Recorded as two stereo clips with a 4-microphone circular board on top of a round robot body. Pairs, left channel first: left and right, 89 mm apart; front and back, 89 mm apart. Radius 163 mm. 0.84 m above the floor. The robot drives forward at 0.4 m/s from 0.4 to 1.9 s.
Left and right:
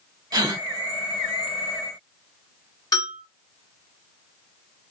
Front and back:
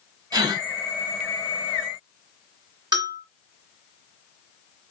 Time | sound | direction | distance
0.3 | a gasp | 135° right | 1.2 m
2.9 | a bell | 135° left | 1.5 m